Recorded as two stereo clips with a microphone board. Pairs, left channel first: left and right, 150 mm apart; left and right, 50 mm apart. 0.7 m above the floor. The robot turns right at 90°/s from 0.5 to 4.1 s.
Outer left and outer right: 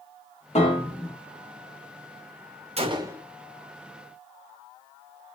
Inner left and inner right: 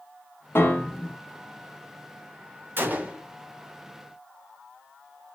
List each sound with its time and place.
0.6 s a piano: 125° left, 0.9 m; by 1.1 s straight behind, 0.9 m
2.8 s a gunshot: 55° right, 0.5 m; by 3.2 s 10° right, 0.5 m